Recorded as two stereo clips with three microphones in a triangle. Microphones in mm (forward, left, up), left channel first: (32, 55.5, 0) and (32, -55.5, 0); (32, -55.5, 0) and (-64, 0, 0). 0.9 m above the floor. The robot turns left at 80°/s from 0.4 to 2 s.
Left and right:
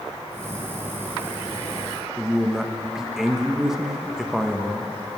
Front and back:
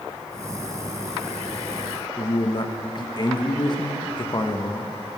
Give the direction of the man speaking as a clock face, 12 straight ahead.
12 o'clock.